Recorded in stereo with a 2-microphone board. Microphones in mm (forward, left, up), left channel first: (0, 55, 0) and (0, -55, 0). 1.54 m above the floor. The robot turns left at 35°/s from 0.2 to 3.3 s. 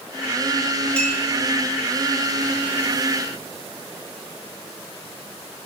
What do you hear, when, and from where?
1.0 s a clink: 10° left (ahead or behind), 4.5 m; by 1.2 s centre (ahead or behind), 4.5 m